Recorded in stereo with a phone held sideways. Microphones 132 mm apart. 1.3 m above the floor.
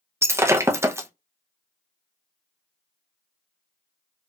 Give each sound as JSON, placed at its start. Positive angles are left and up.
{"t": 0.2, "sound": "breaking glass", "side_deg": -20, "distance_m": 0.6}